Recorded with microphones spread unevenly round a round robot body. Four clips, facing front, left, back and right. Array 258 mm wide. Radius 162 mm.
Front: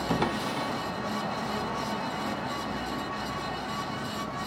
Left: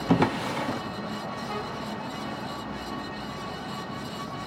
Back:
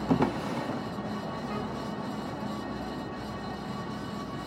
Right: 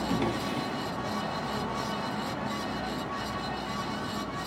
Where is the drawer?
70° left, 0.7 m.